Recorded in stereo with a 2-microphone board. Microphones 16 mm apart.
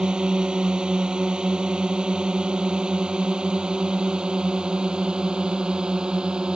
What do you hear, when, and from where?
0.0 s a drone: 60° right (ahead or behind)